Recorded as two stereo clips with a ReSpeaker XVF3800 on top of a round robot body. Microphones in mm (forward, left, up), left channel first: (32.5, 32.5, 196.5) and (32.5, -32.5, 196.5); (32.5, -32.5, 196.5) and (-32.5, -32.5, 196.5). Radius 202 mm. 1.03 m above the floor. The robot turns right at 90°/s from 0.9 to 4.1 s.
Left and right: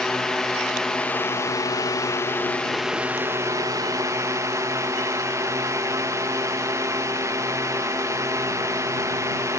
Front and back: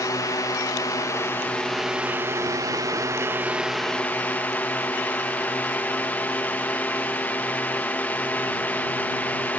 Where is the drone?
10° left; by 9.6 s 60° right.